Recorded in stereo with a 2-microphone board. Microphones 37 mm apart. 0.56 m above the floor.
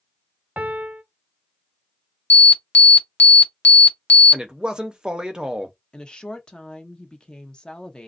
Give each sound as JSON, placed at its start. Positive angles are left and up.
{"t": 0.6, "sound": "a piano", "side_deg": -50, "distance_m": 0.5}
{"t": 2.3, "sound": "an alarm", "side_deg": 45, "distance_m": 0.5}
{"t": 4.3, "sound": "a man speaking", "side_deg": -20, "distance_m": 0.7}
{"t": 5.9, "sound": "a woman speaking", "side_deg": 25, "distance_m": 0.6}